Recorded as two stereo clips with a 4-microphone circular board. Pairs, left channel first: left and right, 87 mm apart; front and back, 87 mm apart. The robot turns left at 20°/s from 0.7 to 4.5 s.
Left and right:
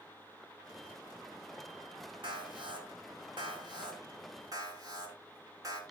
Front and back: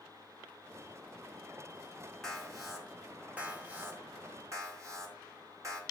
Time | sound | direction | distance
2.2 | an alarm | 85° right | 3.5 m